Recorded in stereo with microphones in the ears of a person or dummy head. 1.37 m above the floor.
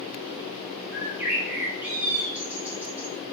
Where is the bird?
5° right (ahead or behind), 0.7 m.